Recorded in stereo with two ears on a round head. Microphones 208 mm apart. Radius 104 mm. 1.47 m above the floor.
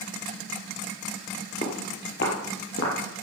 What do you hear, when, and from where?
1.6 s footsteps: 35° left (ahead or behind), 2 m; by 3.2 s 65° left (ahead or behind), 3.5 m